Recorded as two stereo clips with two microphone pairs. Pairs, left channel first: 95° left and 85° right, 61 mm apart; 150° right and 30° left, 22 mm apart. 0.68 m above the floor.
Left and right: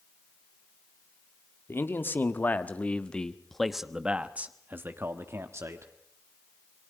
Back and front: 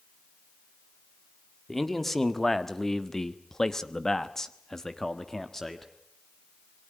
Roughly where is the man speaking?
Behind left.